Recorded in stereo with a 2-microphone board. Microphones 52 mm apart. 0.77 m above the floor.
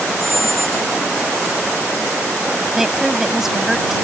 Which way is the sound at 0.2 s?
80° left.